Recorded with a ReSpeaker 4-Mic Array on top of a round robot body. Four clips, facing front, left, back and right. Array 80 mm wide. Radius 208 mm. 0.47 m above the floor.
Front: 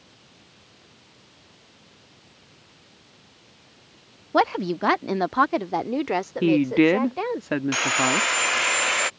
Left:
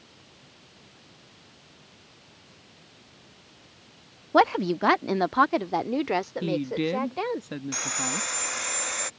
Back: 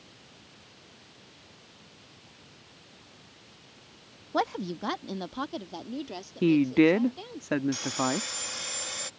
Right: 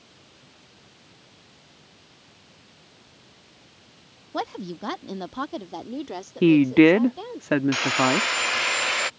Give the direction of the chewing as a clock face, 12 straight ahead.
No chewing in this recording.